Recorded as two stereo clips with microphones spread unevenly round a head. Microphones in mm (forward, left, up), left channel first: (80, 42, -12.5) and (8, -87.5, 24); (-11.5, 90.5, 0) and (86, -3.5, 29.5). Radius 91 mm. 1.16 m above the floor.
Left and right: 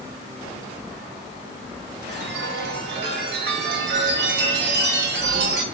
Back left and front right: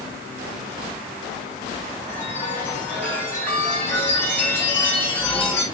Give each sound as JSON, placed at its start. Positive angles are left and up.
{"t": 2.1, "sound": "a chime", "azimuth_deg": -150, "distance_m": 0.9}